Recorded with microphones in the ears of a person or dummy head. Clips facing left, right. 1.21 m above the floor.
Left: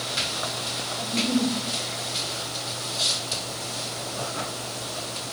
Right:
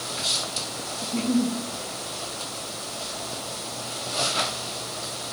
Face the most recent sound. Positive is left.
turn(degrees=5)  # may be behind; listen again after turning